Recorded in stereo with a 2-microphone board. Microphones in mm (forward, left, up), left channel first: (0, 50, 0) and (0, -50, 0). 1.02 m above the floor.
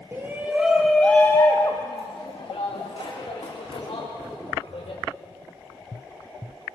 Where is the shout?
25° right (ahead or behind), 1.8 m; by 5.0 s 75° left (ahead or behind), 5 m.